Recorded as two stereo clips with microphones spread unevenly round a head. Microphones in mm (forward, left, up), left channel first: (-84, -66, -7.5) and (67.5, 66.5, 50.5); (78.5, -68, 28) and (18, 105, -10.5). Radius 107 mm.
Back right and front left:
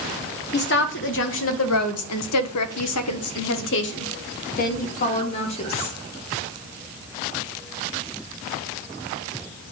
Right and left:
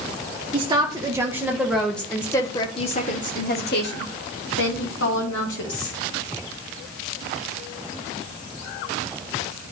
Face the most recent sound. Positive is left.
turn(degrees=-70)